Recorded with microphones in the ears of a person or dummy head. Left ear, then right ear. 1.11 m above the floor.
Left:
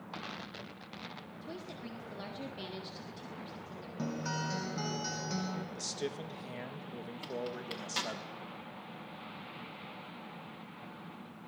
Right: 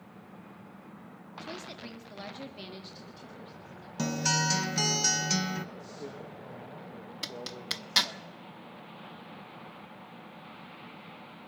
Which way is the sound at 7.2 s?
35° right (ahead or behind).